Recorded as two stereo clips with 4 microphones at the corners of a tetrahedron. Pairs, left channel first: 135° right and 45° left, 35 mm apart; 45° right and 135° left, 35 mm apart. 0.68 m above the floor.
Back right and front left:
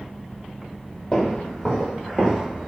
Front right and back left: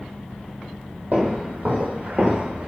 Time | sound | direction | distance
1.1 | footsteps | 170° left | 1.2 m